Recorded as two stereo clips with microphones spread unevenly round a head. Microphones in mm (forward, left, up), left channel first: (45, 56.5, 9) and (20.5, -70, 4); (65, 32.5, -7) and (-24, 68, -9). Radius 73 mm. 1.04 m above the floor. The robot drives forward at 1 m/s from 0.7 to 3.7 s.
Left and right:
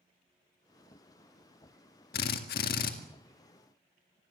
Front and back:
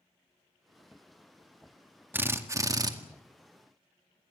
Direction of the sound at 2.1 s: 90° left.